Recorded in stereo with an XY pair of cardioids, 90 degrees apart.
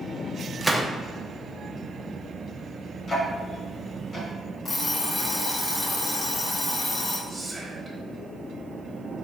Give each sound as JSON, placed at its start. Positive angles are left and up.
{"t": 0.6, "sound": "a gunshot", "azimuth_deg": -10, "distance_m": 0.7}
{"t": 3.1, "sound": "ticking", "azimuth_deg": 55, "distance_m": 1.7}
{"t": 4.7, "sound": "an alarm clock", "azimuth_deg": 50, "distance_m": 1.1}
{"t": 7.3, "sound": "whispering", "azimuth_deg": -10, "distance_m": 1.3}